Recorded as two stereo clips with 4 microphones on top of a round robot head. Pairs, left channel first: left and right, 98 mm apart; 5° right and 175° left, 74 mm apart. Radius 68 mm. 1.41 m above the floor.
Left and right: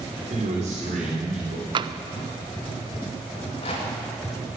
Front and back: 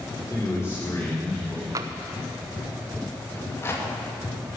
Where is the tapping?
130° right, 0.5 m.